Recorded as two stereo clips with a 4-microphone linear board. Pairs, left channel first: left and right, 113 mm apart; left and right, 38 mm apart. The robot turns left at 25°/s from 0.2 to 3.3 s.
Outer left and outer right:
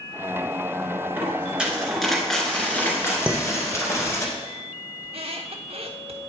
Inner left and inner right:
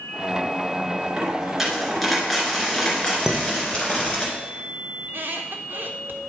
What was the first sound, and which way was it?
A dropped coin, 155° right.